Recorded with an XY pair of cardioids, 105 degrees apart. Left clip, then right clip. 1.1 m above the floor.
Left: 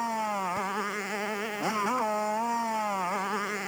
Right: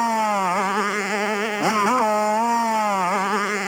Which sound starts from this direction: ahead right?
A motorcycle, at 0.0 s.